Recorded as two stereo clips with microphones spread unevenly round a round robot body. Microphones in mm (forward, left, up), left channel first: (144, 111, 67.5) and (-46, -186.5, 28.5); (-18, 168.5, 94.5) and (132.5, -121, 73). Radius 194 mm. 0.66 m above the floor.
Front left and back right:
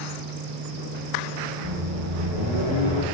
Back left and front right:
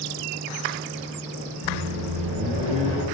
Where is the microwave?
130° right, 0.9 m.